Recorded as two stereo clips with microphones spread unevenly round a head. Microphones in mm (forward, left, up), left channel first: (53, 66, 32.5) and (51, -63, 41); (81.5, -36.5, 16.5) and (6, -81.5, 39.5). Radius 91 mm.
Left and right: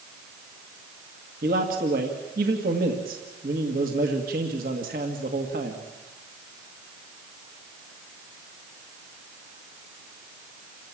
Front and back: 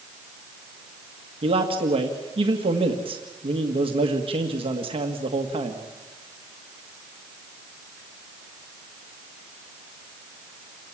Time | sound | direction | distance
1.4 | a man speaking | 130° right | 2.0 m